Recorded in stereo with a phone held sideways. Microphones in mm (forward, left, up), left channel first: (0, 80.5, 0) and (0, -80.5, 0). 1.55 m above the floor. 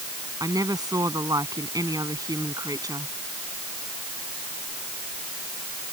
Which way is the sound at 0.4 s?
20° right (ahead or behind).